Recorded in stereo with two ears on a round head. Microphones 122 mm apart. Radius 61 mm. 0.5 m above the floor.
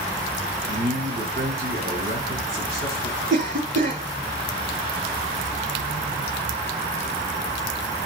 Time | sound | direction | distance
0.7 | a man speaking | 80° right | 5 m
3.3 | a cough | 65° right (ahead or behind) | 6 m